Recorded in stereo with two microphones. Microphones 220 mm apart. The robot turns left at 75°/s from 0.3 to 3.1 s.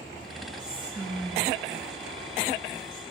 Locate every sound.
0.6 s whispering: 40° right (ahead or behind), 6 m; by 3.0 s 35° left (ahead or behind), 6 m